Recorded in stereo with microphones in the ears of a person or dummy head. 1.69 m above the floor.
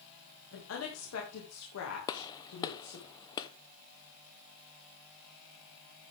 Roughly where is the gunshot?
Left.